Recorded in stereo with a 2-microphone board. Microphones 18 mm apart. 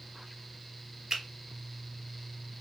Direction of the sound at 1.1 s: 40° right (ahead or behind).